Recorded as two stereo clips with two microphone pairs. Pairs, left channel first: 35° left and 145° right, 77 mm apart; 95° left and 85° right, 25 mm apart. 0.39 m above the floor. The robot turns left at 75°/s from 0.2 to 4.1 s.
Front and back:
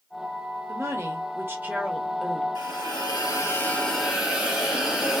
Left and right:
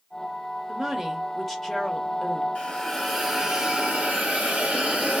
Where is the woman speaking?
125° right, 0.9 m; by 2.5 s 100° left, 0.9 m.